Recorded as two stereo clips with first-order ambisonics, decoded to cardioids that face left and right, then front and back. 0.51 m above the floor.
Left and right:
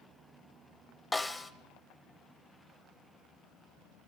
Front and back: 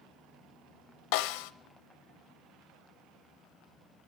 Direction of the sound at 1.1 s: 10° left.